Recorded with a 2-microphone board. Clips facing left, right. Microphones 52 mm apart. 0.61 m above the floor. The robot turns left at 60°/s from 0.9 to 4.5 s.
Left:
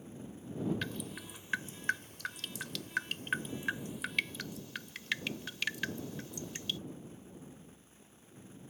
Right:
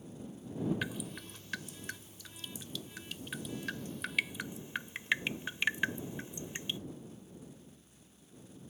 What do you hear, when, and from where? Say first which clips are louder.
0.8 s dripping: right 1 dB; 10° right (ahead or behind); by 6.8 s 25° right (ahead or behind)